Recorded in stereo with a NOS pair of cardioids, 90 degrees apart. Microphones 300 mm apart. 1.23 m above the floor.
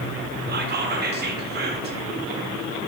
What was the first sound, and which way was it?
Whispering, 35° right.